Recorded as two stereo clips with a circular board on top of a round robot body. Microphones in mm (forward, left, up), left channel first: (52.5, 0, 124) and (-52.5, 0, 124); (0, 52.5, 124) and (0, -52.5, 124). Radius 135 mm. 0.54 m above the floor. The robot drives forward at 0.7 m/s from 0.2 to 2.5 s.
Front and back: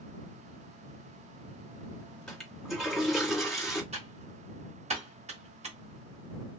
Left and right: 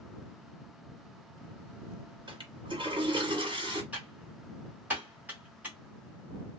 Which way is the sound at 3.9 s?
165° right.